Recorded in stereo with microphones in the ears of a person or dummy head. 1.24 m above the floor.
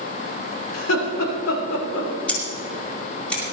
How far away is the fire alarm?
No fire alarm in this recording.